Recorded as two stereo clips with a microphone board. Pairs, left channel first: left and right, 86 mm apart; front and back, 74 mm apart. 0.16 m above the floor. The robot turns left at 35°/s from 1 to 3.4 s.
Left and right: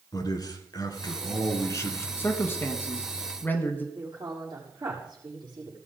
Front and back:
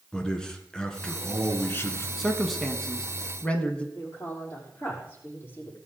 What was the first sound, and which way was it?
A man speaking, 75° left.